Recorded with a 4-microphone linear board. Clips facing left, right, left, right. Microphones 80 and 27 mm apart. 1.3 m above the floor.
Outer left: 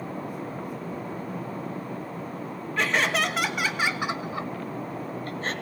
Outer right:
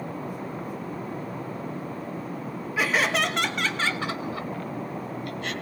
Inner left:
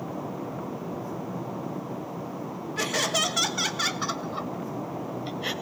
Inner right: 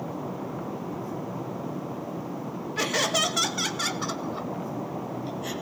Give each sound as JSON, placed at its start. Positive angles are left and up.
{"t": 2.8, "sound": "laughter", "side_deg": -5, "distance_m": 1.9}